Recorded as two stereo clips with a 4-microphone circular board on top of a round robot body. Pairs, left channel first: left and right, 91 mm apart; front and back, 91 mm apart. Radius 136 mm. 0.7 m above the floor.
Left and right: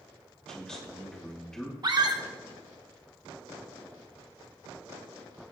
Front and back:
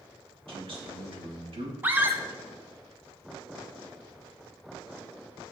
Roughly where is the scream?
Behind right.